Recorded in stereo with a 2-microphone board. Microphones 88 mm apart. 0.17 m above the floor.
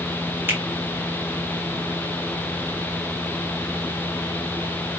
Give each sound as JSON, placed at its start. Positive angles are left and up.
{"t": 0.5, "sound": "a finger snap", "side_deg": -20, "distance_m": 1.5}